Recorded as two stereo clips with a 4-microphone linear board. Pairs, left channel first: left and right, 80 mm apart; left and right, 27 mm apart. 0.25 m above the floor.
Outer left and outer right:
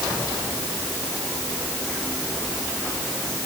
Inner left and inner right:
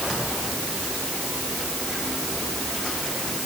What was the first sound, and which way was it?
Only background noise.